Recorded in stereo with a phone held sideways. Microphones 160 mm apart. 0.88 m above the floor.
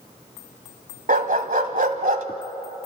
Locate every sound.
1.1 s a dog barking: 65° right (ahead or behind), 1.5 m